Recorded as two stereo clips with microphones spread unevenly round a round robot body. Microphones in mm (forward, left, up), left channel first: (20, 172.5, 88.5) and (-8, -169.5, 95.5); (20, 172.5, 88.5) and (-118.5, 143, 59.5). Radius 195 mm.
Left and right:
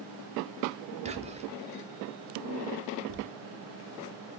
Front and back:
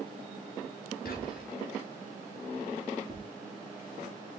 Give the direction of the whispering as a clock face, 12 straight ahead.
1 o'clock.